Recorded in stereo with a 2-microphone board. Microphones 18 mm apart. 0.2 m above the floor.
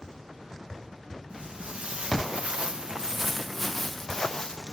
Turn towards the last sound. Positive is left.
turn(degrees=30)  # may be behind; listen again after turning